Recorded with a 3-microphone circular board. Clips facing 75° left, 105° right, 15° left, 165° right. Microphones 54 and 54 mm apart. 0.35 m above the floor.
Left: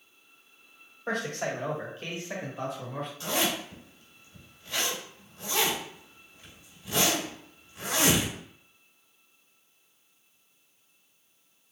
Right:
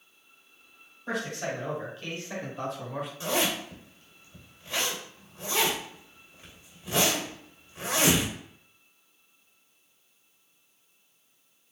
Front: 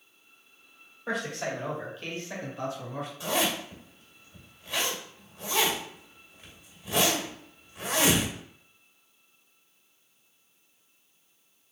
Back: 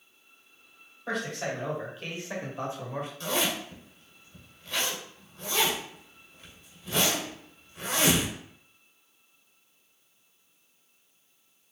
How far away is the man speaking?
About 2 m.